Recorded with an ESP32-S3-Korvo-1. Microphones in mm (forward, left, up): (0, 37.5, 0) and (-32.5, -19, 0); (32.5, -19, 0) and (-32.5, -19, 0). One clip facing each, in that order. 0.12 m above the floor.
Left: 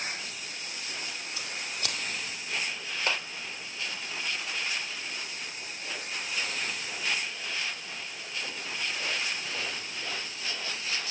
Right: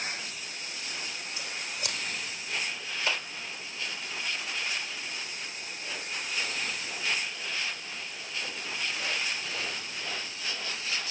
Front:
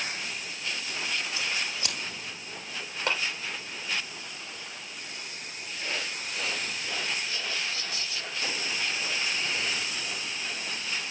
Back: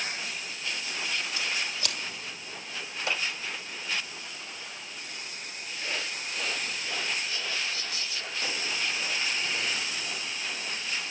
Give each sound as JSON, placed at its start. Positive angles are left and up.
{"t": 1.4, "sound": "scissors", "azimuth_deg": 65, "distance_m": 3.5}
{"t": 3.1, "sound": "a clap", "azimuth_deg": 10, "distance_m": 4.0}